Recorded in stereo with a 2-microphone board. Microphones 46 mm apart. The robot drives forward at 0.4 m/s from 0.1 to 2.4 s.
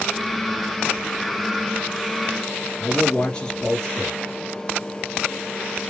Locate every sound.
2.8 s a man speaking: 20° left (ahead or behind), 1.9 m